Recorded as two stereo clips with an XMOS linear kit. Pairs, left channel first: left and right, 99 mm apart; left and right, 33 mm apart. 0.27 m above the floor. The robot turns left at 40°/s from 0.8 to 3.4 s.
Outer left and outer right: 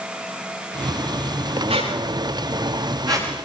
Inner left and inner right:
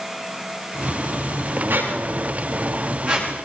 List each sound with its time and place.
1.7 s a squeak: 85° right, 9 m; by 3.3 s 35° right (ahead or behind), 9 m